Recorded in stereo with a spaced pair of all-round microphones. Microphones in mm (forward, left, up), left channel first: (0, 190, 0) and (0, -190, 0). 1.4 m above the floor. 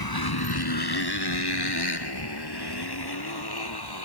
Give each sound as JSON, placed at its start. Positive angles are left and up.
{"t": 0.0, "sound": "a motorcycle", "side_deg": 70}